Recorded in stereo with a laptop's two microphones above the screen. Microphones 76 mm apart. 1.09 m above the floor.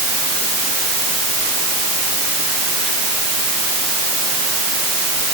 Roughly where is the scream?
I don't hear a scream.